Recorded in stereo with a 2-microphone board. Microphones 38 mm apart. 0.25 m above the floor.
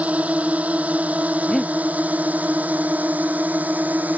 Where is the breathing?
Centre (ahead or behind).